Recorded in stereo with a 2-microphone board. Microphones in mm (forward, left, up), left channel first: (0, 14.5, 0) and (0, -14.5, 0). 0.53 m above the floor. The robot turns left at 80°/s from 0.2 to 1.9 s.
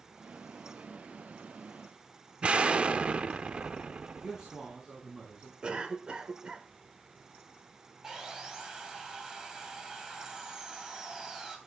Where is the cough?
35° right (ahead or behind), 1.9 m.